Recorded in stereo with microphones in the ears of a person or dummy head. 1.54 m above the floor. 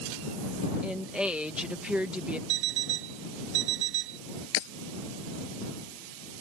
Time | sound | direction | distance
0.8 | a woman speaking | 5° right (ahead or behind) | ?
2.5 | an alarm clock | 60° right (ahead or behind) | ?
4.5 | breaking glass | 70° left (ahead or behind) | ?